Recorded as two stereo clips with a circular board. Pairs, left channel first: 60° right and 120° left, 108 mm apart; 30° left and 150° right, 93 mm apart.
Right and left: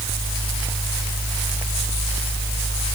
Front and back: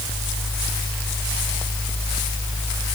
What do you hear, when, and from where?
Only background noise.